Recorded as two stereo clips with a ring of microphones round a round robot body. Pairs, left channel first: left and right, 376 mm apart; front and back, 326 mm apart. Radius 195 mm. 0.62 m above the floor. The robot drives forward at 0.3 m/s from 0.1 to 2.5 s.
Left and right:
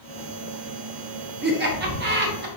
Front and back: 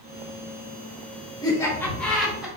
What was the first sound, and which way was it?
Laughter, 65° right.